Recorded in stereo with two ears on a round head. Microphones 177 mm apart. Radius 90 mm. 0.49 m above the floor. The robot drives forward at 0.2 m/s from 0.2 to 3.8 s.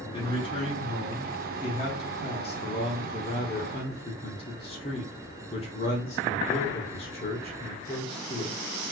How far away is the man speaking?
About 1.3 m.